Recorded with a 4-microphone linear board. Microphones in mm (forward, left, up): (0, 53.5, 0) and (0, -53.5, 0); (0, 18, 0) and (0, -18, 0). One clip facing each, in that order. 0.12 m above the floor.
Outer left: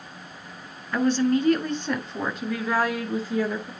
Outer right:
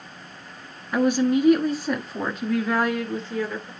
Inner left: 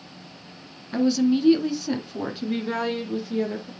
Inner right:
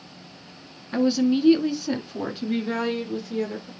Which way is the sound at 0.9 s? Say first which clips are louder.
Outer right 1 dB, even; 15° right (ahead or behind).